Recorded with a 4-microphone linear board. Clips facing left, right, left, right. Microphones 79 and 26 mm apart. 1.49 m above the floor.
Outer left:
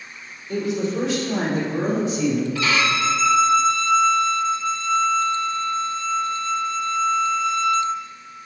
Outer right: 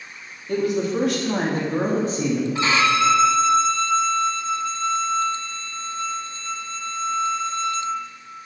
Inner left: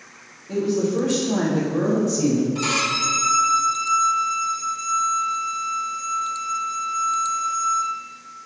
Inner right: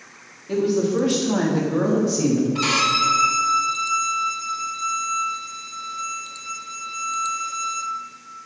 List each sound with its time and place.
0.5 s a woman speaking: 65° right (ahead or behind), 3.5 m; by 2.5 s 30° right (ahead or behind), 2.5 m
2.5 s a violin: 30° right (ahead or behind), 1.0 m